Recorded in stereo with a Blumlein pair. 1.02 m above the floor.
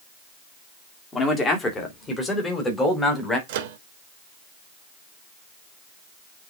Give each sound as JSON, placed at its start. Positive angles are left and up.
{"t": 1.1, "sound": "a man speaking", "azimuth_deg": 20, "distance_m": 2.0}
{"t": 3.5, "sound": "a microwave", "azimuth_deg": -50, "distance_m": 1.0}